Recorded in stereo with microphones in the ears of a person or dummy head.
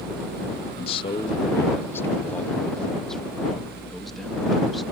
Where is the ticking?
No ticking in this recording.